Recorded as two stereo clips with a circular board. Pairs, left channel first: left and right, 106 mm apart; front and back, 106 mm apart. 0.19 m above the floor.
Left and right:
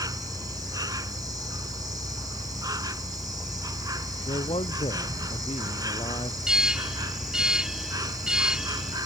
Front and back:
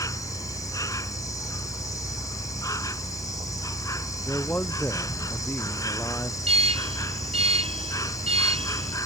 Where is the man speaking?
70° left.